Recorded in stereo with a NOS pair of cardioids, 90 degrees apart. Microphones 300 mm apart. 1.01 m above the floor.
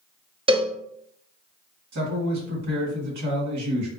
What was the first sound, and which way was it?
A cowbell, 20° right.